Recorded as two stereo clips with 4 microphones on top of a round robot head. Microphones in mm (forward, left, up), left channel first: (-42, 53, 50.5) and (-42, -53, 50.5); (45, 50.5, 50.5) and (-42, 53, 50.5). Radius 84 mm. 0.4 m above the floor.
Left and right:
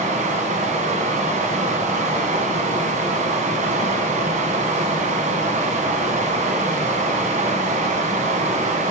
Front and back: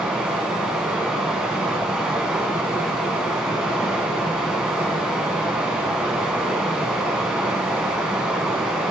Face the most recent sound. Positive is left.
turn(degrees=-95)